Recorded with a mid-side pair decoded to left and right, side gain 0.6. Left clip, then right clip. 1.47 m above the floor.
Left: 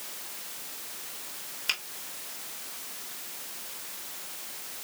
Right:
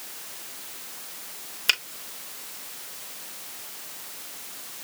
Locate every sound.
1.7 s a finger snap: 40° right, 3 m